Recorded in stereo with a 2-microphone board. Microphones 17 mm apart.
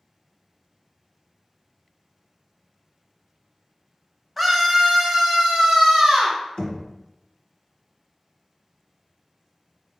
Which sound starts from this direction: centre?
A scream, at 4.4 s.